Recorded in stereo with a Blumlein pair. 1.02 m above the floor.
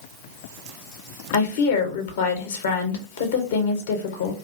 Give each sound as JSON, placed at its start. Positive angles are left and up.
{"t": 1.3, "sound": "a woman speaking", "azimuth_deg": 60, "distance_m": 0.6}